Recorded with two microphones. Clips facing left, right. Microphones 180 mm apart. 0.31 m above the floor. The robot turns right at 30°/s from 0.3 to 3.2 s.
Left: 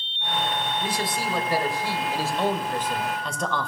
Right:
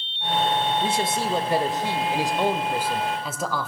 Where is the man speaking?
25° right (ahead or behind), 0.9 m; by 3.7 s 5° right (ahead or behind), 0.9 m.